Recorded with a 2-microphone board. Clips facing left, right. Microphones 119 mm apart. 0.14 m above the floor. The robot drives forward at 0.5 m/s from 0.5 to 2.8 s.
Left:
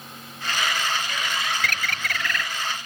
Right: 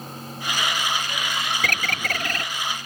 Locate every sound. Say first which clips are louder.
1.6 s a bird: right 2 dB; 45° right (ahead or behind); by 2.5 s 40° right (ahead or behind)